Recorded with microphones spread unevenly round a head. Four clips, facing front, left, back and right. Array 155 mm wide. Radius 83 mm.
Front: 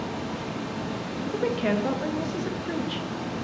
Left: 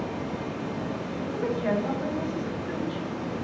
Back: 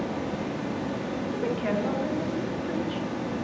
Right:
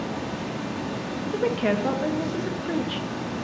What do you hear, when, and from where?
0.0 s running water: 140° right, 1.0 m
1.3 s a woman speaking: 60° right, 0.7 m